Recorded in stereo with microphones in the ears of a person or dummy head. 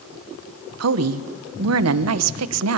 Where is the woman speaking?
75° right (ahead or behind), 0.9 m.